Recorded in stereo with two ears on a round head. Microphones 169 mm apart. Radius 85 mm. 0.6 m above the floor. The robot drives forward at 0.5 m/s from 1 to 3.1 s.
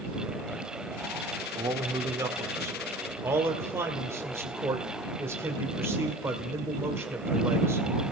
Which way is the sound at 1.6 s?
20° right (ahead or behind).